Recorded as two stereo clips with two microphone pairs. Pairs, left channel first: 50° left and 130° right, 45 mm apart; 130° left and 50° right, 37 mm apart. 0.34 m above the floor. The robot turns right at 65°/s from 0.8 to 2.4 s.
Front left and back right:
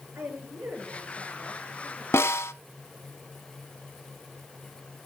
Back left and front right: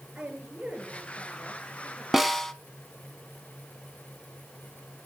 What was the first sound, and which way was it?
A woman speaking, 115° right.